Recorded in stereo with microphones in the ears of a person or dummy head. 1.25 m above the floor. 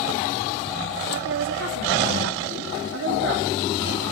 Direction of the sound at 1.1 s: 55° right (ahead or behind).